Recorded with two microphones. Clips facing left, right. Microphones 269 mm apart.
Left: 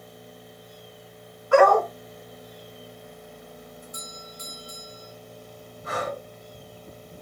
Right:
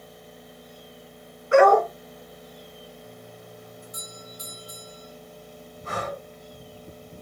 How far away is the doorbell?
About 4.5 m.